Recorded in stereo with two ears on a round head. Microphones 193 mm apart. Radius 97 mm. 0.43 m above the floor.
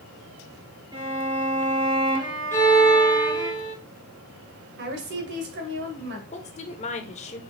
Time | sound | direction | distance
0.9 | a violin | 20° right (ahead or behind) | 2.5 m
2.5 | a violin | 10° left (ahead or behind) | 2 m
4.8 | a woman speaking | 55° right (ahead or behind) | 2 m
6.3 | a woman speaking | 30° left (ahead or behind) | 1.0 m